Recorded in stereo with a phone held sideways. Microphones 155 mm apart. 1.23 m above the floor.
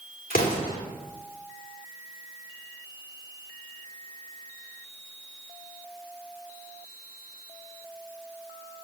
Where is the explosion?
70° left (ahead or behind), 3.5 m.